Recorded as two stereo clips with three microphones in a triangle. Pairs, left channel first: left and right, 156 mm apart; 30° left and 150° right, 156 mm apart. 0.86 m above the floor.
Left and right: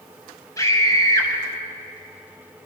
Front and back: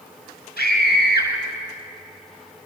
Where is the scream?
20° left, 6 m.